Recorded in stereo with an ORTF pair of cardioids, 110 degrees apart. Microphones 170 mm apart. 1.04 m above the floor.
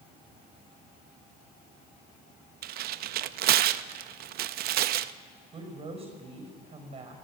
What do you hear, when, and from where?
2.6 s tearing paper: 70° right, 0.5 m
5.5 s a woman speaking: 35° right, 5 m